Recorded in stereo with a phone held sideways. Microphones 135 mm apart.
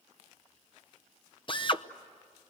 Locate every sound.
1.5 s a drill: 40° left (ahead or behind), 0.8 m